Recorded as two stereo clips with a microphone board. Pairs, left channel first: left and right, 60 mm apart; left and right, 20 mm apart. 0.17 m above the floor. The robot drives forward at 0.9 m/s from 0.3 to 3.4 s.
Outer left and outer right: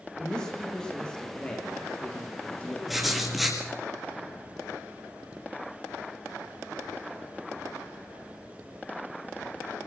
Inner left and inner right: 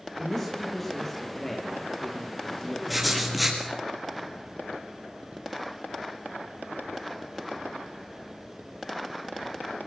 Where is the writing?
5° right (ahead or behind), 3.5 m.